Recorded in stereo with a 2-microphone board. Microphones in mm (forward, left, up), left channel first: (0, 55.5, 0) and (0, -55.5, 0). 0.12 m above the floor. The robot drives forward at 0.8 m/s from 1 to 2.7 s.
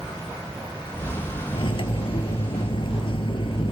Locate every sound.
1.5 s cutlery clinking: 50° left (ahead or behind), 1.3 m; by 3.7 s 55° left (ahead or behind), 1.2 m